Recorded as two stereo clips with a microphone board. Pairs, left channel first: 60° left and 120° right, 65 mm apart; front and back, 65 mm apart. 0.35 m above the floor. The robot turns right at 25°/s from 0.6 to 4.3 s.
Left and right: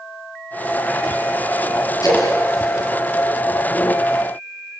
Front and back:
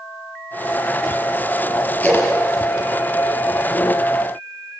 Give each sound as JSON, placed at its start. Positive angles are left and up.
{"t": 2.0, "sound": "a splash", "azimuth_deg": 65, "distance_m": 6.0}